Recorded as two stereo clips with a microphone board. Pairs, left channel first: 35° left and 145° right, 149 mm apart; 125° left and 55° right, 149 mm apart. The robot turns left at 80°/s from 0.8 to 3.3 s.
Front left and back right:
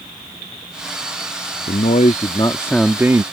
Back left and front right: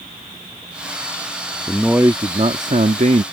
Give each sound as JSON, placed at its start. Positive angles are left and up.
{"t": 1.7, "sound": "a man speaking", "azimuth_deg": 40}